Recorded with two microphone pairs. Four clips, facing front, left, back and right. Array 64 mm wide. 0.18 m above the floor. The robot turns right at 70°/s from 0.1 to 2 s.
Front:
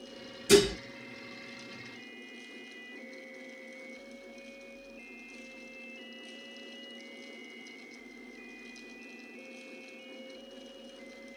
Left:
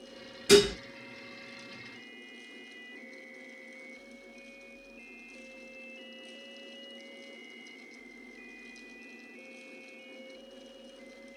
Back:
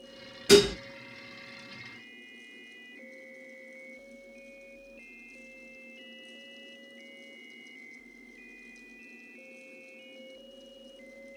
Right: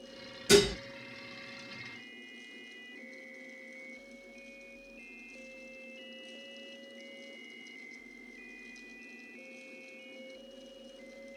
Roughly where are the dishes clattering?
Behind left.